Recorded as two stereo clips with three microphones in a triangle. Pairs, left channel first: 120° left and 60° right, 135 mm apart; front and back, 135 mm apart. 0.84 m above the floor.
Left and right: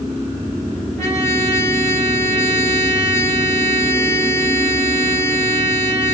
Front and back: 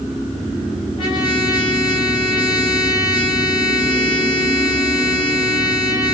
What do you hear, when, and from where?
1.0 s a trumpet: 50° left, 3.5 m